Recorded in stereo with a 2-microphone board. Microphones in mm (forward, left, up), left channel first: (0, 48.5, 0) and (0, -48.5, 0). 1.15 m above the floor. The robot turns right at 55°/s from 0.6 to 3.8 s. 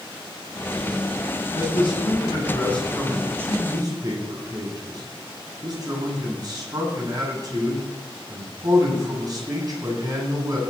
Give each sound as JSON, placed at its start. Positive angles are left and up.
{"t": 1.5, "sound": "a man speaking", "azimuth_deg": 100, "distance_m": 8.0}